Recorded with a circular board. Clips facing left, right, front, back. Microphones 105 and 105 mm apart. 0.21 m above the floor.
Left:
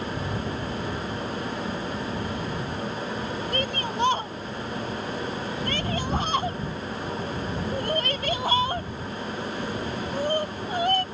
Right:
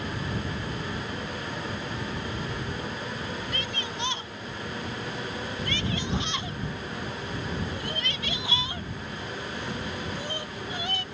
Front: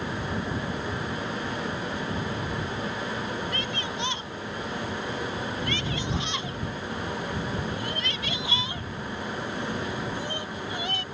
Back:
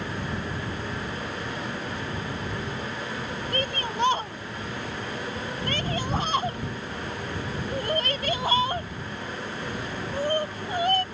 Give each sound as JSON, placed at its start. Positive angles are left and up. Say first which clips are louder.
{"t": 3.5, "sound": "a shout", "louder": "left 6 dB, back 3 dB", "azimuth_deg": 135}